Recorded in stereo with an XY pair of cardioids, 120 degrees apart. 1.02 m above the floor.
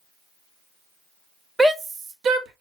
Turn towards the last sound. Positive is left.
turn(degrees=-70)